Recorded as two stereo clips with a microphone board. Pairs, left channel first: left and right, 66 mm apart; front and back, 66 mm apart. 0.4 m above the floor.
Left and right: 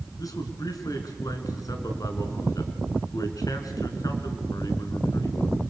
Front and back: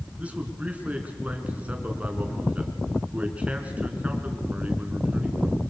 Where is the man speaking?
110° left, 3.5 m.